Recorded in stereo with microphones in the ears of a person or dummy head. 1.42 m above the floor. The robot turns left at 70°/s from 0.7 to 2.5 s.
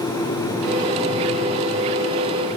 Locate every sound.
Only background noise.